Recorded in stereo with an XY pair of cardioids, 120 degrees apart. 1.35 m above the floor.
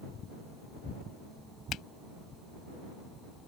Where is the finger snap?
65° left.